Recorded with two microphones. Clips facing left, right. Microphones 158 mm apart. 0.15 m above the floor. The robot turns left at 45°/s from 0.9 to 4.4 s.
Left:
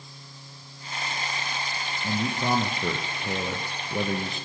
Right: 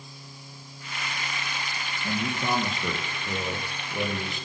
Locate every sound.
2.0 s a man speaking: 155° left, 3 m; by 4.5 s 50° left, 3 m